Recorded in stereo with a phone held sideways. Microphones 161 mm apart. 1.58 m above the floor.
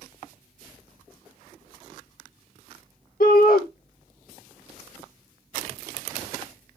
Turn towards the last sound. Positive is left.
turn(degrees=65)  # may be behind; listen again after turning